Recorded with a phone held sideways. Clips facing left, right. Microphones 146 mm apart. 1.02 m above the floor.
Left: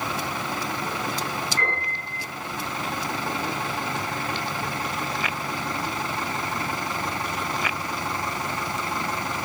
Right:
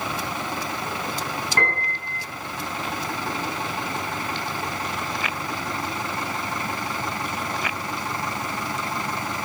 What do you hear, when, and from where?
1.6 s a piano: 65° right (ahead or behind), 8.5 m